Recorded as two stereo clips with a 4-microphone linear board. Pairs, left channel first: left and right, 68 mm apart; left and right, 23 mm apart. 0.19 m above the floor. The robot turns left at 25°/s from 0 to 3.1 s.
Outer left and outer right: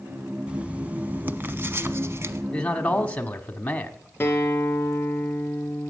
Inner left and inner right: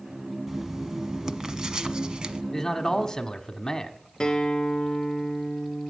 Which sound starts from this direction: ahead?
Writing, at 0.5 s.